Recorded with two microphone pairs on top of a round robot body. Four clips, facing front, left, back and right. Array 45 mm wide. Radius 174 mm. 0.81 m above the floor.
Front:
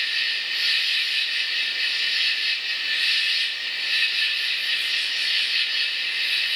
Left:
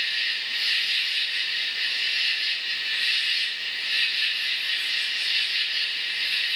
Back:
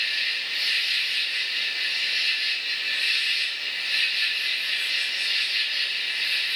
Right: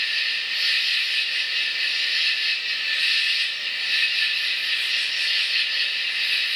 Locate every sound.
0.0 s an insect: 75° right, 2.5 m